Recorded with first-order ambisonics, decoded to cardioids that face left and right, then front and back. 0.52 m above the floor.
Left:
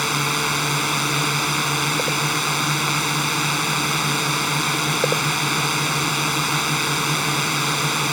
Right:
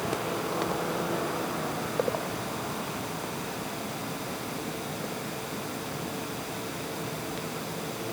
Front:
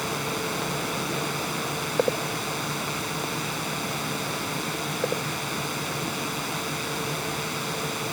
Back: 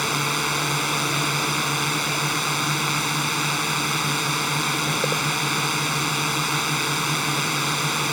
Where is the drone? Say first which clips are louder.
Left 10 dB, back 6 dB; 120° left.